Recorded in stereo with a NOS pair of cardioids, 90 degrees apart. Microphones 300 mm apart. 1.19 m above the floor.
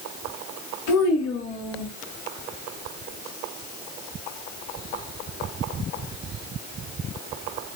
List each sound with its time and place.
0.9 s a child speaking: 70° left, 1.3 m; by 1.9 s 25° left, 1.5 m